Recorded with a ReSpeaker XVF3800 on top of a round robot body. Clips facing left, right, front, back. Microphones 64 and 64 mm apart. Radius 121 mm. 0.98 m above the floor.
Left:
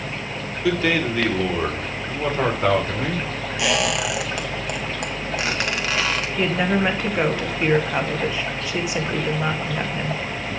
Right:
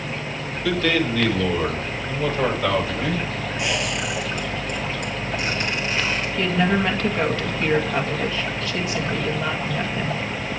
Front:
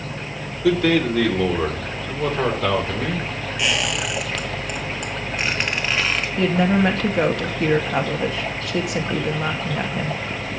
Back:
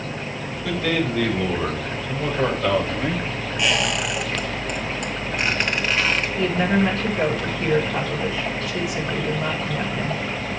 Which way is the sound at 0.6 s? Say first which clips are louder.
Left 1 dB, front 6 dB; 10° left.